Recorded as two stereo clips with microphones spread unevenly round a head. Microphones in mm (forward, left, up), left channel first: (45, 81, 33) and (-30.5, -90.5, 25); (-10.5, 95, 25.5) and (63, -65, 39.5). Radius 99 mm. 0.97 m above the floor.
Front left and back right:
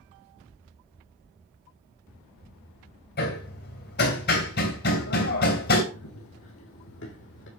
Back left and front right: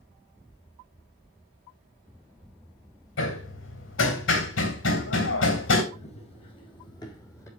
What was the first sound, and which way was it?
Hammering, 105° left.